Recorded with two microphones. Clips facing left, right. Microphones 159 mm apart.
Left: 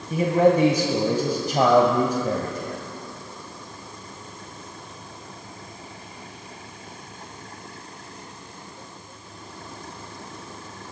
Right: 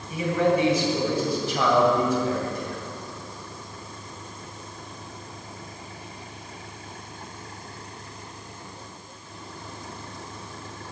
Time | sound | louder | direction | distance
0.1 | a man speaking | left 4 dB | 45° left (ahead or behind) | 1.7 m